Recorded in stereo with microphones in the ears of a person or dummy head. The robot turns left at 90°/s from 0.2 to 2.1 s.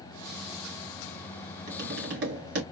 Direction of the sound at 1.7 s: 50° right.